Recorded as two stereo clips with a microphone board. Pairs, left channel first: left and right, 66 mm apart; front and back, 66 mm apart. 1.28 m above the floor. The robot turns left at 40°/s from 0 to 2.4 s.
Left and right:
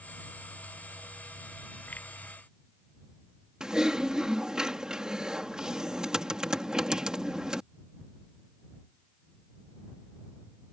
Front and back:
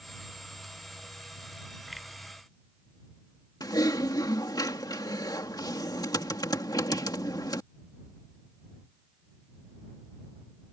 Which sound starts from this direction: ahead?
Typing on a keyboard, at 3.6 s.